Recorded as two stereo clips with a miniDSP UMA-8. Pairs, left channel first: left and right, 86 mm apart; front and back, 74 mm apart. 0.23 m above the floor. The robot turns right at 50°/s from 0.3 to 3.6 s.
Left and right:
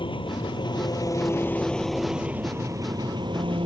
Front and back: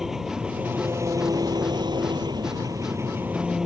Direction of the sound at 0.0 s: 95° left.